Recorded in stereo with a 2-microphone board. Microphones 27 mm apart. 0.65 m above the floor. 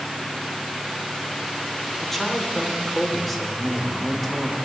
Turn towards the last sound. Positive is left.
turn(degrees=5)  # may be behind; listen again after turning